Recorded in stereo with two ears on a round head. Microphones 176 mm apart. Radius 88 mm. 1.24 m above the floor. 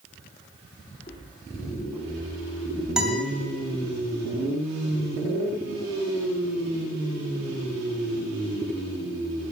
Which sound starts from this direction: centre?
A guitar, at 3.0 s.